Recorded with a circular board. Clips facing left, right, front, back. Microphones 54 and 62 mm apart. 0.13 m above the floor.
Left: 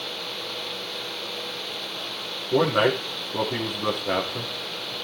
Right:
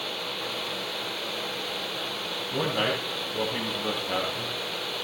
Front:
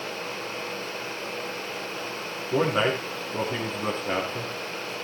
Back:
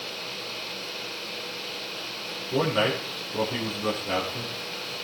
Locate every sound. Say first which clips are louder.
2.5 s a man speaking: left 7 dB, front 1 dB; 65° left, 7 m